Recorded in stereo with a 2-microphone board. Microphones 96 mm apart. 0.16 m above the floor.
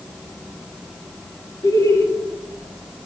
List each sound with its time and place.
1.6 s laughter: 35° left (ahead or behind), 1.8 m